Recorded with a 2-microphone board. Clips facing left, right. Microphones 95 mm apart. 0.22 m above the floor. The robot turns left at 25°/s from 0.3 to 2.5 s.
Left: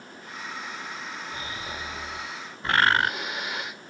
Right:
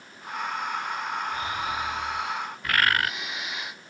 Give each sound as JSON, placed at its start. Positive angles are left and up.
{"t": 1.3, "sound": "snoring", "side_deg": 25, "distance_m": 7.0}
{"t": 2.6, "sound": "a bird", "side_deg": 30, "distance_m": 0.6}